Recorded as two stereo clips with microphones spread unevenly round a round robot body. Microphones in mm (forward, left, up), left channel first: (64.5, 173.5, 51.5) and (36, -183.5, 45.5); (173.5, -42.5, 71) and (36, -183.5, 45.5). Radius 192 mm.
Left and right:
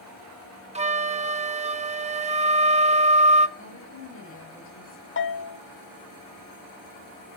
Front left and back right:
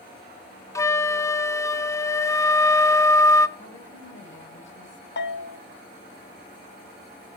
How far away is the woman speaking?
About 8 m.